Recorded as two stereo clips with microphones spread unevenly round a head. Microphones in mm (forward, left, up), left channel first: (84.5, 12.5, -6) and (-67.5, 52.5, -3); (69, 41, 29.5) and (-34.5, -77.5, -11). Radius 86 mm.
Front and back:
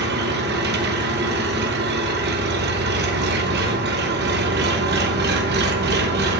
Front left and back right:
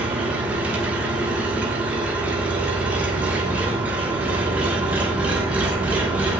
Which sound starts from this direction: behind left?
An engine running, at 0.0 s.